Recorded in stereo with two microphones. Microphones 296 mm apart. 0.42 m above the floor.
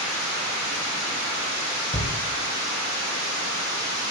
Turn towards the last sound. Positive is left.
turn(degrees=20)  # may be behind; listen again after turning